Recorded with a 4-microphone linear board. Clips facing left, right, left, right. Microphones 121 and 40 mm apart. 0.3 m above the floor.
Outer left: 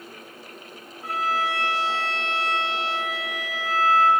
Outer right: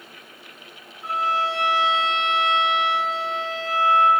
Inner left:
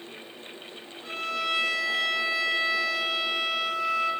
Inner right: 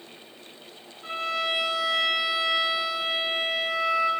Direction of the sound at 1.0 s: 25° right (ahead or behind).